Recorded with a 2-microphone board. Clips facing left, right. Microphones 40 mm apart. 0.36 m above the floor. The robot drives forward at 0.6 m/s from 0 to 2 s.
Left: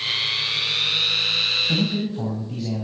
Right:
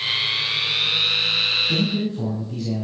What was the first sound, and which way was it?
A man speaking, 30° left (ahead or behind).